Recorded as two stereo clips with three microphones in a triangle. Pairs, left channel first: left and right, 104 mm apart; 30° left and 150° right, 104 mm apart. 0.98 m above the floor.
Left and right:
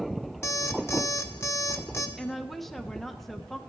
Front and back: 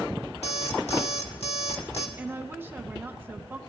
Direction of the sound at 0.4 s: 25° left.